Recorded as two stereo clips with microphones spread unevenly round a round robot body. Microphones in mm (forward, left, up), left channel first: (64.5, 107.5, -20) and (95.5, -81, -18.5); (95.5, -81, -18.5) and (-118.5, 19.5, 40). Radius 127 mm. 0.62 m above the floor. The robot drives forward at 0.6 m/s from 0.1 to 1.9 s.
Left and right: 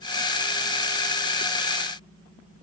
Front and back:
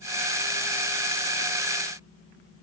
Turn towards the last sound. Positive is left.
No sound to turn to.